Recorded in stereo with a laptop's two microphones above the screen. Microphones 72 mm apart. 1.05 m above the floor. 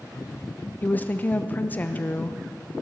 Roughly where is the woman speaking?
Left.